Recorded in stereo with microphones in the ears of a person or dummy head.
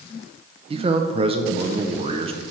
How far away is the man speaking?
About 0.5 m.